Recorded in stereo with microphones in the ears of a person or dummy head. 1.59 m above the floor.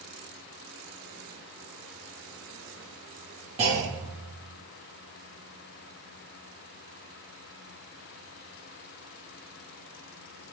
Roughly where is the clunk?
Right.